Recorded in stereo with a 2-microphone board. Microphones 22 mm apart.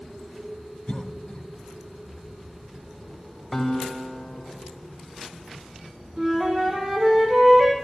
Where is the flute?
35° right (ahead or behind), 2.5 m.